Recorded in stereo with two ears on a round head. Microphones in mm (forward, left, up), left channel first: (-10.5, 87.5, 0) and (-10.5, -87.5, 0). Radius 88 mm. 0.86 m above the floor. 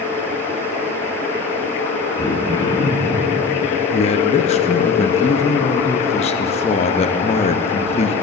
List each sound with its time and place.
2.2 s throat clearing: 20° left (ahead or behind), 1.7 m
3.9 s a man speaking: 35° left (ahead or behind), 0.7 m